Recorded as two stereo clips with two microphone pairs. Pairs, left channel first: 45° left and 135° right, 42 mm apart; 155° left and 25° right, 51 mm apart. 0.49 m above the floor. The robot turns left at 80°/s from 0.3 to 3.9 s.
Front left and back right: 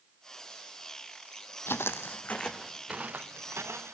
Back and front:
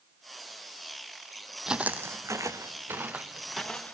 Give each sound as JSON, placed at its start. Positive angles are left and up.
{"t": 1.7, "sound": "footsteps", "azimuth_deg": 60, "distance_m": 0.9}